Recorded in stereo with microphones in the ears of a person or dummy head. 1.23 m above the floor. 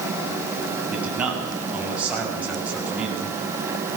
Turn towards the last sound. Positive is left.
turn(degrees=-10)  # may be behind; listen again after turning